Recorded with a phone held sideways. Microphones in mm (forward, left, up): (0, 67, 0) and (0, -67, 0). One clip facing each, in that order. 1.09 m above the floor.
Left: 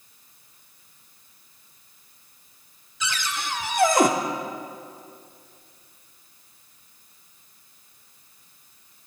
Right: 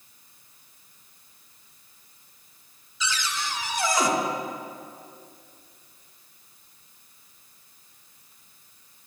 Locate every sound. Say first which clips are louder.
3.0 s a cupboard door: left 1 dB; 55° left (ahead or behind), 0.9 m